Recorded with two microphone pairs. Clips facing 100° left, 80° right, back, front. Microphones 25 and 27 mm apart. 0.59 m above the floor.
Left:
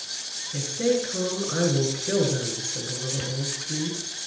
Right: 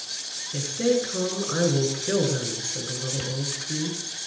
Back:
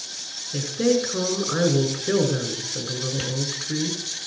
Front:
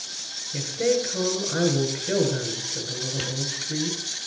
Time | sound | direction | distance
0.5 | a woman speaking | 165° right | 9.5 m